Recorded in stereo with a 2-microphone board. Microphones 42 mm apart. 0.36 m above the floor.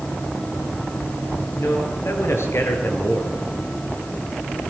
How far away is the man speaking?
About 5.5 m.